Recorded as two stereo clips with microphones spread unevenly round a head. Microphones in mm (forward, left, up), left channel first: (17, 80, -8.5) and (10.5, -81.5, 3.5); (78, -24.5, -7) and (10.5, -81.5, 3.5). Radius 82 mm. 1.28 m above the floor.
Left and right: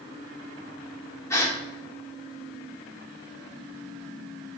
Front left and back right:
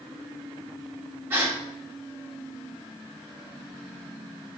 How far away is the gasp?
About 1.2 m.